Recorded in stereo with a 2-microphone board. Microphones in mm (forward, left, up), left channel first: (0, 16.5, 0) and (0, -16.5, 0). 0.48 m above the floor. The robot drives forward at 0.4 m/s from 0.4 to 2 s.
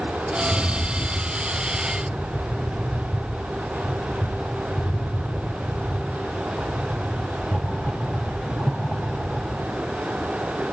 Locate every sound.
0.4 s a rattle: 10° left (ahead or behind), 4.5 m